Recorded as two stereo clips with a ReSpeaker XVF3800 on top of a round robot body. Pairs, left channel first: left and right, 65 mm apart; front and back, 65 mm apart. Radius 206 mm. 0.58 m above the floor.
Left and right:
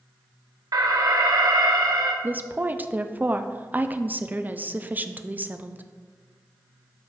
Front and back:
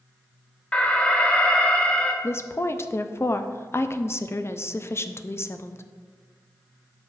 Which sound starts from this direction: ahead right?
A woman speaking, at 2.2 s.